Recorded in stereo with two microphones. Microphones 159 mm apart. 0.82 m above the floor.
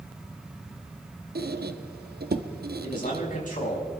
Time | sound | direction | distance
1.4 | a squeak | 80° right | 0.7 m
2.8 | a man speaking | 55° left (ahead or behind) | 5 m